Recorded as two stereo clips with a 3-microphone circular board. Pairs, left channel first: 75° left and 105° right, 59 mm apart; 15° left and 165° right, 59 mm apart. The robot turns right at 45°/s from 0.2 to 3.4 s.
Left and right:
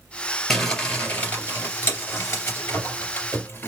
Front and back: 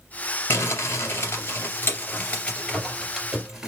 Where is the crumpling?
15° right, 2 m; by 3.7 s 115° left, 2 m.